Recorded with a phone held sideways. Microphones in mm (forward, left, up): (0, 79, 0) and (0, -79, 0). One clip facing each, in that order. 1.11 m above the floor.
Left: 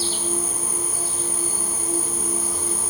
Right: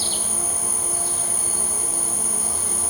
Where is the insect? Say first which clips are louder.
Left 4 dB; 80° right, 3 m.